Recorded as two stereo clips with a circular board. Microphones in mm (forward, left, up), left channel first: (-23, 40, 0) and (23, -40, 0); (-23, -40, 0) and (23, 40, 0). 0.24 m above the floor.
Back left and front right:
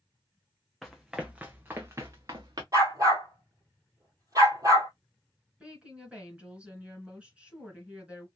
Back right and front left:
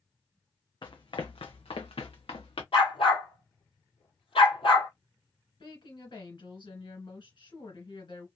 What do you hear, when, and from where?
0.8 s running footsteps: 155° right, 1.1 m; by 2.6 s 105° right, 1.5 m
2.7 s a dog barking: 110° right, 1.9 m
5.6 s a woman speaking: 135° right, 2.5 m